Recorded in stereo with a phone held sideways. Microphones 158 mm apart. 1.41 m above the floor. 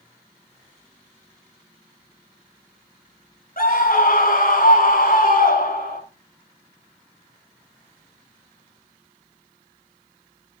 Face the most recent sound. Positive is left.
turn(degrees=70)  # may be behind; listen again after turning